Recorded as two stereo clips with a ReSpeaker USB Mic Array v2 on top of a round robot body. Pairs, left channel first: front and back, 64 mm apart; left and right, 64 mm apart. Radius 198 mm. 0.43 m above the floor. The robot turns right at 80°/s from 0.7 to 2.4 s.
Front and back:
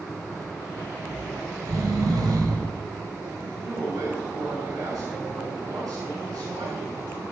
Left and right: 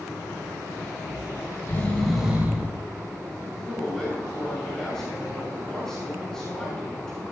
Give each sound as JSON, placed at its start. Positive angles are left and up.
{"t": 1.1, "sound": "snoring", "azimuth_deg": 95, "distance_m": 3.5}
{"t": 3.4, "sound": "a man speaking", "azimuth_deg": 175, "distance_m": 7.0}